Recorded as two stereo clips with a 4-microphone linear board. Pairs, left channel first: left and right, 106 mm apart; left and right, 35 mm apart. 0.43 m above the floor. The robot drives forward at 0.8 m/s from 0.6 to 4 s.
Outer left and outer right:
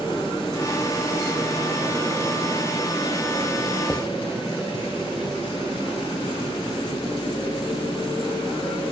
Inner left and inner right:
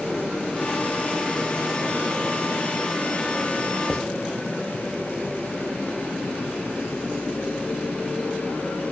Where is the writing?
10° left (ahead or behind), 1.1 m; by 4.1 s 5° left (ahead or behind), 1.1 m.